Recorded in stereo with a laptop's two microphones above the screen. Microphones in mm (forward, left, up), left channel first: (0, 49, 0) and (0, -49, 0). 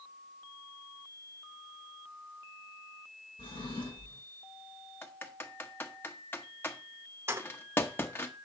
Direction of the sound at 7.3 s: 25° right (ahead or behind).